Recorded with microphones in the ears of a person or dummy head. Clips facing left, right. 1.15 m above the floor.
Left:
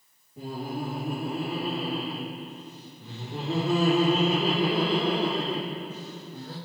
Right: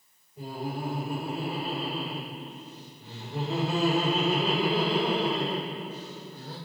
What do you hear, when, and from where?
0.4 s laughter: 60° left (ahead or behind), 2.5 m